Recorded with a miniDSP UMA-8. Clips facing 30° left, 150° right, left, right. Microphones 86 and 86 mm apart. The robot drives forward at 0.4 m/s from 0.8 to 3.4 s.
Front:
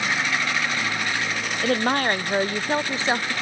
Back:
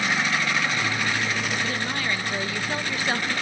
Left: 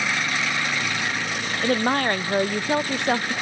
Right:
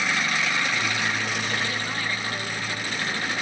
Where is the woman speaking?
55° left, 1.0 m; by 3.4 s 100° left, 0.9 m.